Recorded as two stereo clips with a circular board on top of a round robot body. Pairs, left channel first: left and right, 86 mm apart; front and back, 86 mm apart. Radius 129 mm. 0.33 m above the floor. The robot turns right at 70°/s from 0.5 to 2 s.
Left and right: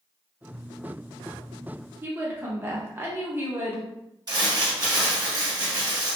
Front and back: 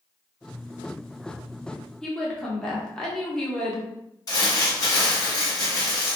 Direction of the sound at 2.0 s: 75° right.